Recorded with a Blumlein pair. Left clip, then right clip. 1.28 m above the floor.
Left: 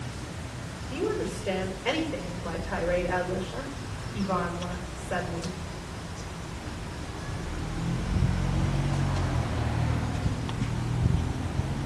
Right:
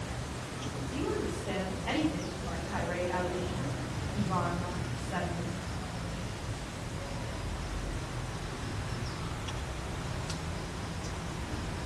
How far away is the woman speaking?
About 6 m.